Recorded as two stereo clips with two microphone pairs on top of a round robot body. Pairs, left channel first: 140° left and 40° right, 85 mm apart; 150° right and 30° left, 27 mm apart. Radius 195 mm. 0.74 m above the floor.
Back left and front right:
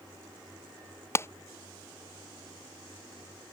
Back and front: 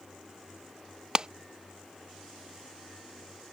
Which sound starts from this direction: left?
A clap, at 1.1 s.